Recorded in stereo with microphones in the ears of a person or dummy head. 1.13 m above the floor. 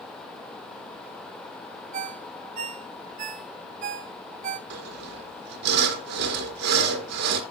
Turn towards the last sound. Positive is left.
turn(degrees=-55)  # may be behind; listen again after turning